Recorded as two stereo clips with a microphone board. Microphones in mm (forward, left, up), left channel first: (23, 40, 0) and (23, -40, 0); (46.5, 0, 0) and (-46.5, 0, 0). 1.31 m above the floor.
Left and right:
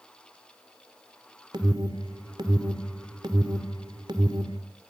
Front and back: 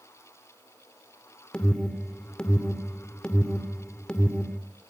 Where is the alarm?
80° right, 2.5 m.